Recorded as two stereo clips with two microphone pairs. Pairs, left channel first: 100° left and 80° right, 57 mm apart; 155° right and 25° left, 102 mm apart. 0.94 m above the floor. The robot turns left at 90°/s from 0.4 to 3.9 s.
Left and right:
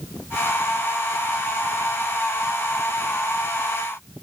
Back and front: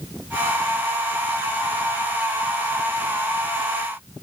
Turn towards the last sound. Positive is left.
No sound to turn to.